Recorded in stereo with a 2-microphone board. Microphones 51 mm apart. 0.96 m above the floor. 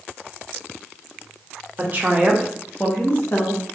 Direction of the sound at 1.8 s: 35° right (ahead or behind).